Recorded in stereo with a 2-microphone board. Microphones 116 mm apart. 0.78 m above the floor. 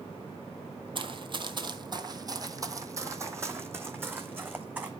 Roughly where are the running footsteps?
Right.